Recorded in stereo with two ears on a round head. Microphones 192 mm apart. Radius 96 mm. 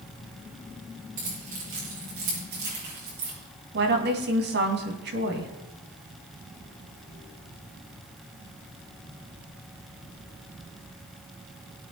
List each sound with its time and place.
1.2 s keys jangling: 40° right (ahead or behind), 8 m; by 3.3 s 50° right (ahead or behind), 7.5 m
3.7 s a woman speaking: 55° right (ahead or behind), 3 m